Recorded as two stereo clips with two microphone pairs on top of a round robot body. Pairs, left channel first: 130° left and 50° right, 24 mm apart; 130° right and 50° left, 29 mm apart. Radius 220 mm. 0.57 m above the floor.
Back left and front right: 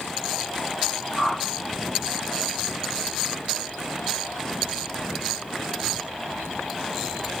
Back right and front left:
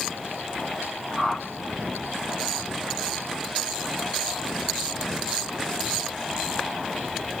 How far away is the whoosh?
About 0.9 m.